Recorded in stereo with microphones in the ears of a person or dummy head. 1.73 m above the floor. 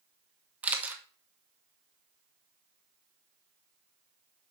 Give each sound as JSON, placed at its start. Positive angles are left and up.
{"t": 0.6, "sound": "a camera shutter", "side_deg": -10, "distance_m": 1.2}